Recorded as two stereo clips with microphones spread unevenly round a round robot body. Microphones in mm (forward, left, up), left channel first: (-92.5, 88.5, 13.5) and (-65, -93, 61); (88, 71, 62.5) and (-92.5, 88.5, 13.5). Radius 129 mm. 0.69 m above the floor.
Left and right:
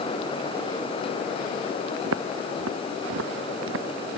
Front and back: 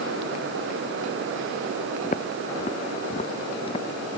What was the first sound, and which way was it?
Footsteps, 65° right.